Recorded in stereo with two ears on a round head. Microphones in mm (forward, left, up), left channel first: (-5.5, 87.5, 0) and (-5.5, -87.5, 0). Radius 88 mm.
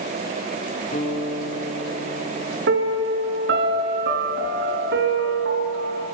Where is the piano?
60° right (ahead or behind), 4 m.